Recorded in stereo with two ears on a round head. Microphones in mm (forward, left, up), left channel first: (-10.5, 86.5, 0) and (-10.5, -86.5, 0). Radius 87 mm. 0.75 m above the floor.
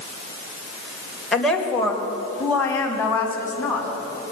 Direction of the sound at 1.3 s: Centre (ahead or behind).